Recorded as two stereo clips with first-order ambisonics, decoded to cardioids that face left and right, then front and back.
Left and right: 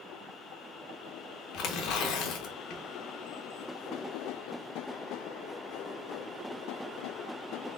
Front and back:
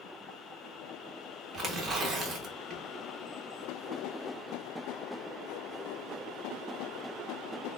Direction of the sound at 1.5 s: 125° left.